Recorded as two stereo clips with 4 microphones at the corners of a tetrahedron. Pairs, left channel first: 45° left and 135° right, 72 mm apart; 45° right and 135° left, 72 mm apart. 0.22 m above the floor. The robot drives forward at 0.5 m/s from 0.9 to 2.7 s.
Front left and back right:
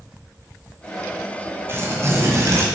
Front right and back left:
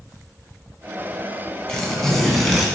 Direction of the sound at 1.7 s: 115° right.